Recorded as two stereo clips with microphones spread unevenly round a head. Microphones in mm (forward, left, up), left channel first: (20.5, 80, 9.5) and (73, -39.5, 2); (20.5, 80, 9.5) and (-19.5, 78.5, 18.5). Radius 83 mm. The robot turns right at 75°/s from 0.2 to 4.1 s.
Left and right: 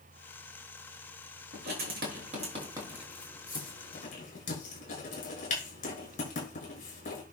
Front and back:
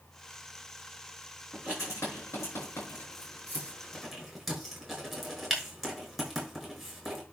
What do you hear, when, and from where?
1.5 s writing: 95° right, 6.5 m; by 7.2 s 100° left, 6.5 m